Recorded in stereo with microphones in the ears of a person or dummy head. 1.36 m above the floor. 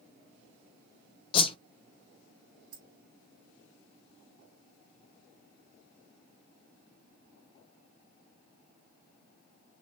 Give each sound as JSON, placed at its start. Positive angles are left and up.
{"t": 1.3, "sound": "a whoosh", "side_deg": 30, "distance_m": 0.6}
{"t": 2.7, "sound": "keys jangling", "side_deg": -50, "distance_m": 1.4}